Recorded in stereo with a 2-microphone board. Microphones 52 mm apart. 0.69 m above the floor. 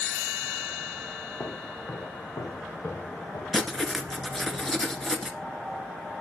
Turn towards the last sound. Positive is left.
turn(degrees=5)  # may be behind; listen again after turning